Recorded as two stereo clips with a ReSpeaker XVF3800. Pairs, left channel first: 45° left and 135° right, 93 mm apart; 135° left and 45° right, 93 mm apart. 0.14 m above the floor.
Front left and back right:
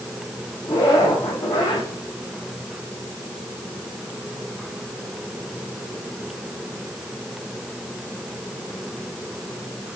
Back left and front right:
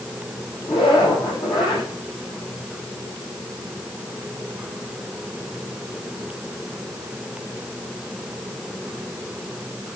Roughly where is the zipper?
Left.